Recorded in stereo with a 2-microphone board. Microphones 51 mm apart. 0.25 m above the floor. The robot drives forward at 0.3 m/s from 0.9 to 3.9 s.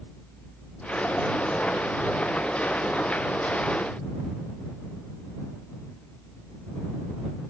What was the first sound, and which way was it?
Only background noise.